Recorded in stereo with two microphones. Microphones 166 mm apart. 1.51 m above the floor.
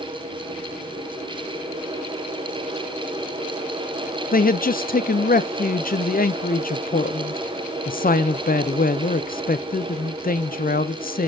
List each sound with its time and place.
4.3 s a man speaking: 55° left (ahead or behind), 0.5 m